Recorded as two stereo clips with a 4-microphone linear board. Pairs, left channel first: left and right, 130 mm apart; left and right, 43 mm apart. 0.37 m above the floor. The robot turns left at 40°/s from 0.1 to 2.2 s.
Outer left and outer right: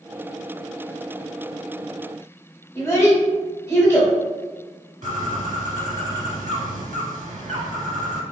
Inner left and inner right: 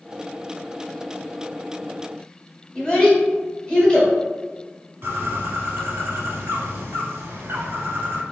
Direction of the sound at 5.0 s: 75° right (ahead or behind).